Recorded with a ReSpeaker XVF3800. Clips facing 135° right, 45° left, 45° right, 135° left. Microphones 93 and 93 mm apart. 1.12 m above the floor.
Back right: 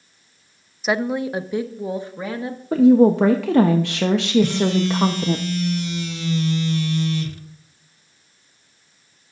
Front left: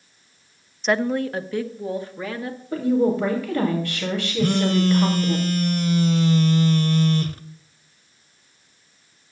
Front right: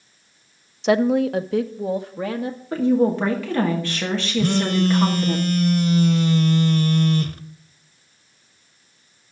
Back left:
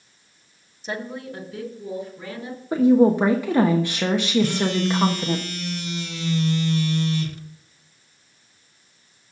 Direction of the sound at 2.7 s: 150° right.